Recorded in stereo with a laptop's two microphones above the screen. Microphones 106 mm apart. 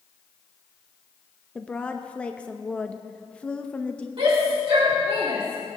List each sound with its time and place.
1.6 s a woman speaking: 10° left (ahead or behind), 0.6 m
4.2 s a shout: 65° right (ahead or behind), 2 m